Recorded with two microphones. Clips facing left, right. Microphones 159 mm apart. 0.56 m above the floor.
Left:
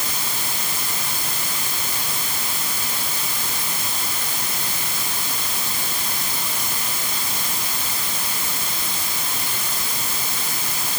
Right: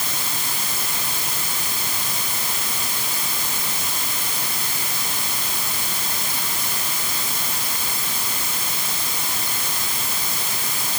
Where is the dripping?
I don't hear dripping.